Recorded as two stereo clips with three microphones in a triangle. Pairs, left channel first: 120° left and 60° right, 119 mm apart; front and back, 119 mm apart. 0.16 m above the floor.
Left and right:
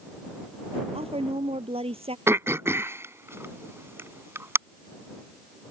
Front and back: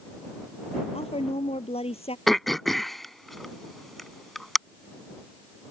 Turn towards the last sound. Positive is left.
turn(degrees=-85)